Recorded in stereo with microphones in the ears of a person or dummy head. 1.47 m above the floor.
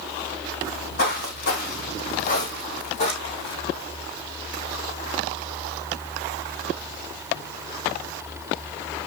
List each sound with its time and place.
0.6 s footsteps: 70° left (ahead or behind), 4 m; by 3.6 s 30° left (ahead or behind), 2 m